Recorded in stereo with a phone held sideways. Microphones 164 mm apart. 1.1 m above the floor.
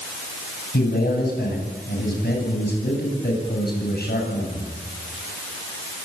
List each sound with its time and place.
0.7 s a man speaking: 75° left (ahead or behind), 8.5 m